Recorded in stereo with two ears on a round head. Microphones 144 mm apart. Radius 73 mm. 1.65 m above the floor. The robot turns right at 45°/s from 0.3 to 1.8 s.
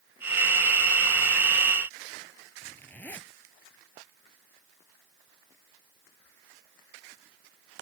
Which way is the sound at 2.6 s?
10° left (ahead or behind).